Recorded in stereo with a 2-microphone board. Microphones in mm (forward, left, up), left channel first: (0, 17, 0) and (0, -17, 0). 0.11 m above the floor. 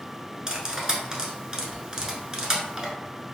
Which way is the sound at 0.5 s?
15° right (ahead or behind).